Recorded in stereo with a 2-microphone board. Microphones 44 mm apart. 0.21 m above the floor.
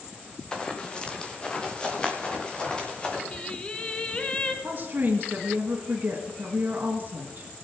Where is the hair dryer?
No hair dryer in this recording.